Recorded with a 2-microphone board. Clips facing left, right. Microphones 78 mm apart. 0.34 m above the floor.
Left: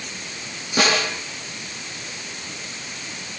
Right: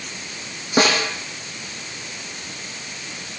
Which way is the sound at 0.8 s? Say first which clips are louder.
Right 2 dB; 35° right (ahead or behind).